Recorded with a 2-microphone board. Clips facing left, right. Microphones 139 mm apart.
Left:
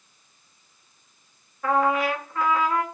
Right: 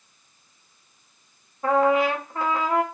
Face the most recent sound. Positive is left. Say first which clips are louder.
# right 3 dB
turn(degrees=-30)  # may be behind; listen again after turning